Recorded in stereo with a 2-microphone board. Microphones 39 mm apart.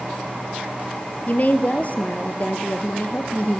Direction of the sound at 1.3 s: 45° left (ahead or behind).